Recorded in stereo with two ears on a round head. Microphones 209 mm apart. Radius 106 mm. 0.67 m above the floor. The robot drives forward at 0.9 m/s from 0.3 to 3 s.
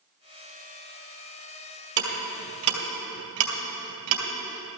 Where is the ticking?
50° right (ahead or behind), 3 m; by 4.2 s 65° right (ahead or behind), 2.5 m.